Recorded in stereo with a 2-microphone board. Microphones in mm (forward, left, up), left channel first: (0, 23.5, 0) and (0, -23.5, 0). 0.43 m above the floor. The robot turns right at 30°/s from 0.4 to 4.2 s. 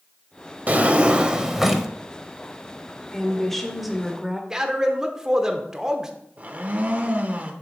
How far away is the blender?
About 0.7 m.